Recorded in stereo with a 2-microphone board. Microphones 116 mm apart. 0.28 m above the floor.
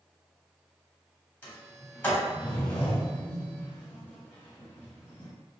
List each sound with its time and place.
1.4 s a sliding door: 15° left (ahead or behind), 1.3 m